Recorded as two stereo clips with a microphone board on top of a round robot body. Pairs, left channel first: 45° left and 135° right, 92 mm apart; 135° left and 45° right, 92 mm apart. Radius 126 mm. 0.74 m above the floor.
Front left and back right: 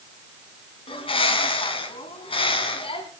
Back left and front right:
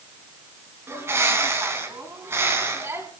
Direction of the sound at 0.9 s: 20° left.